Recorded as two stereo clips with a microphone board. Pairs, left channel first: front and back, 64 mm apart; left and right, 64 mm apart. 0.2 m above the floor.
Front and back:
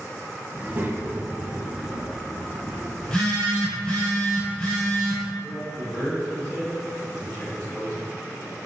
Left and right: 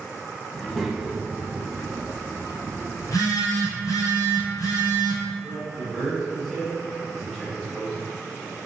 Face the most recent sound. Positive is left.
turn(degrees=5)